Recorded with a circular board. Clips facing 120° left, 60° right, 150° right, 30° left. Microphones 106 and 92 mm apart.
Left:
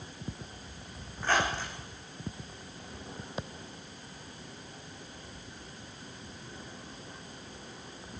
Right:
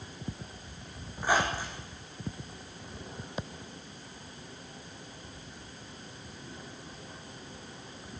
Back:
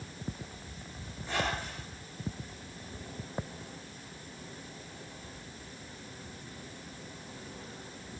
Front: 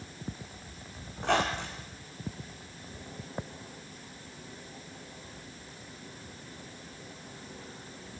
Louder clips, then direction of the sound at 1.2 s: Right 1 dB, front 6 dB; 20° left.